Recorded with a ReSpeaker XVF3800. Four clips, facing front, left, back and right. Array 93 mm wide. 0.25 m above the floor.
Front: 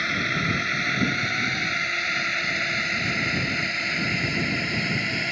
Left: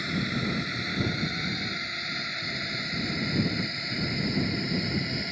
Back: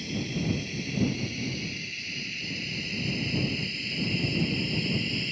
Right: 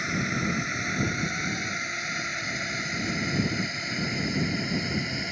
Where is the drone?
15° right; by 5.3 s 10° right.